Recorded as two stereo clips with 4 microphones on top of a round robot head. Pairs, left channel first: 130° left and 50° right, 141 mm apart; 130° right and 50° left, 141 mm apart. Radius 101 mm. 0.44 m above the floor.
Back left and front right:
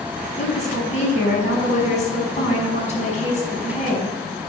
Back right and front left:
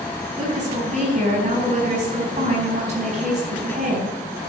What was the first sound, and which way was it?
A woman speaking, 90° left.